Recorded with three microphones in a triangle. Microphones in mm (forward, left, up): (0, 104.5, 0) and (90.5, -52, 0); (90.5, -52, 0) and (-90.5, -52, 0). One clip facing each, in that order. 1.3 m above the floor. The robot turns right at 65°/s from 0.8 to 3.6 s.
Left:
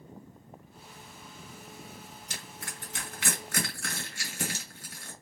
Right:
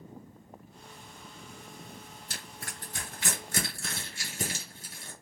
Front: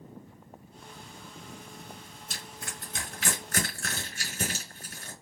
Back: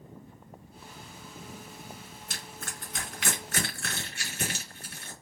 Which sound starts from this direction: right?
Crushing, at 2.3 s.